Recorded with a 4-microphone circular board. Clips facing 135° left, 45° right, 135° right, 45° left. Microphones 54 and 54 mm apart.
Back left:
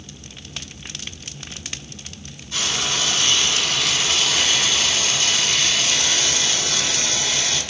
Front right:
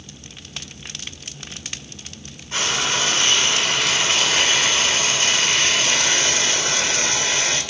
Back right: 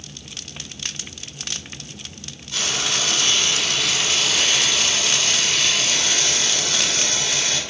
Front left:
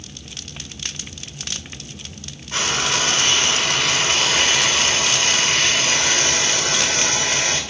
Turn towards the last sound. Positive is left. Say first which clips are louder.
# front right 3 dB, front left 4 dB
turn(degrees=5)